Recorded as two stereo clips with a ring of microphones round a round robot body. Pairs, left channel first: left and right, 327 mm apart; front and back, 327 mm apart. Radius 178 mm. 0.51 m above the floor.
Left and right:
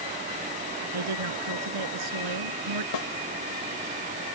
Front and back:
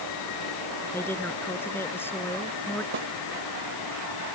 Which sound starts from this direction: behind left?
A snare drum, at 2.9 s.